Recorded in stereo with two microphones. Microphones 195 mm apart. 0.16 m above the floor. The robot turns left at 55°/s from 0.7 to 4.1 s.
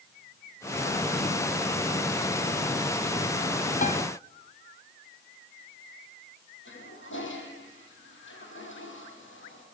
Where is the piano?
40° left (ahead or behind), 1.0 m; by 4.0 s 45° left (ahead or behind), 1.0 m.